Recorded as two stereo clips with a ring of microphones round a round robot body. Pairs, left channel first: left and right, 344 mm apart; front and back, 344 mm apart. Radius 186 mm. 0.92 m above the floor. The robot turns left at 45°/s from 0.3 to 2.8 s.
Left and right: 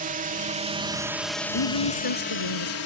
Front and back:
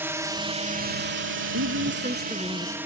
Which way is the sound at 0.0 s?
105° right.